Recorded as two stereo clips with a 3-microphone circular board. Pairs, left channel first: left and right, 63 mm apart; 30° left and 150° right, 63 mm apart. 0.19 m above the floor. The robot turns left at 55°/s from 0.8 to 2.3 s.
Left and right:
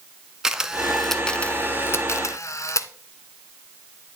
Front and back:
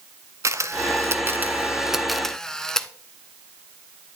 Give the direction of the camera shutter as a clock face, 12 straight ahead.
6 o'clock.